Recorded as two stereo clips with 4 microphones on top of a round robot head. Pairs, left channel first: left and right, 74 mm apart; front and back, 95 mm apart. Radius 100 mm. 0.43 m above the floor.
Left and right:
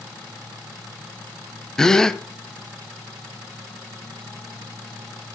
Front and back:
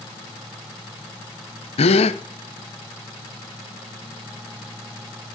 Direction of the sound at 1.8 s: 5° left.